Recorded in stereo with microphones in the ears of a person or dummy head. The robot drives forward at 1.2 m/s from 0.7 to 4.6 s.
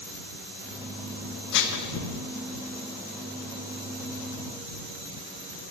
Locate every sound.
1.5 s dishes clattering: 65° left (ahead or behind), 1.7 m; by 1.9 s 55° left (ahead or behind), 1.9 m